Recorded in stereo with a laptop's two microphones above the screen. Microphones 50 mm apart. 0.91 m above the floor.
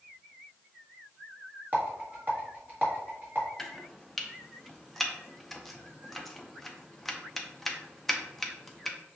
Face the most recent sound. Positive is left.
turn(degrees=5)  # may be behind; listen again after turning